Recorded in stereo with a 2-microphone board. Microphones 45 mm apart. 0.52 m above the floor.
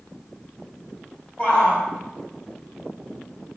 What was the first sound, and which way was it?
A shout, 25° left (ahead or behind).